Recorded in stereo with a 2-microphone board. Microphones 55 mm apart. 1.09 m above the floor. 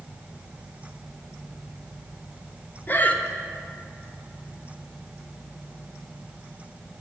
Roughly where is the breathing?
Left.